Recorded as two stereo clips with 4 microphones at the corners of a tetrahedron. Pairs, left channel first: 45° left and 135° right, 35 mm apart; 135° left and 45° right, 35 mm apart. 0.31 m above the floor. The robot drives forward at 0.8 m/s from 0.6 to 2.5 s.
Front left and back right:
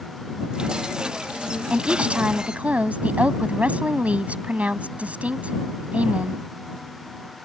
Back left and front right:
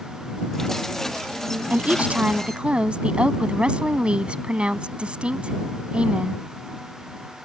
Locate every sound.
1.7 s a woman speaking: 80° right; by 6.4 s 95° right